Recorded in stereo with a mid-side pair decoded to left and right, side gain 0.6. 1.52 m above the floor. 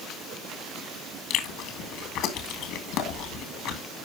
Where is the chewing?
70° left, 2 m.